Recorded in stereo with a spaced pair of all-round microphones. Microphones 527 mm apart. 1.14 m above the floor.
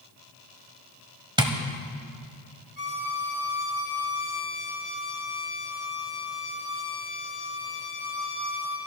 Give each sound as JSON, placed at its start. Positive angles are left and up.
{"t": 1.4, "sound": "tapping", "side_deg": -10, "distance_m": 1.2}
{"t": 2.8, "sound": "a violin", "side_deg": 65, "distance_m": 1.6}